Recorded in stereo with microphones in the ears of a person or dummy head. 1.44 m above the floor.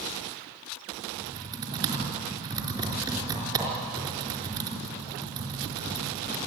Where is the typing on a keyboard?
25° right (ahead or behind), 4.5 m.